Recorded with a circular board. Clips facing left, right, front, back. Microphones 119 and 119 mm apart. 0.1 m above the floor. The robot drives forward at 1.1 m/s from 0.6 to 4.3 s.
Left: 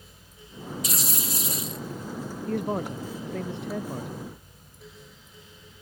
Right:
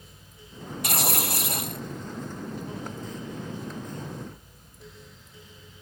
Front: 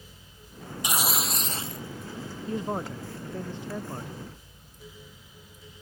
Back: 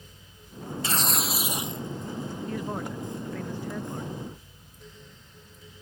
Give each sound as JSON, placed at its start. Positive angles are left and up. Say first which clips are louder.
{"t": 0.8, "sound": "tearing paper", "louder": "right 8 dB, even", "azimuth_deg": -70}
{"t": 2.5, "sound": "a man speaking", "louder": "left 7 dB, front 5 dB", "azimuth_deg": 65}